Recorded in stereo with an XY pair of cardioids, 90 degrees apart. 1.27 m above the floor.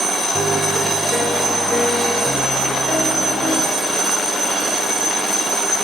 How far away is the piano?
About 6 m.